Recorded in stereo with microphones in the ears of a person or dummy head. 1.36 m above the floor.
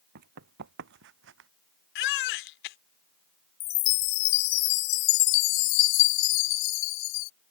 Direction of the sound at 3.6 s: 65° left (ahead or behind).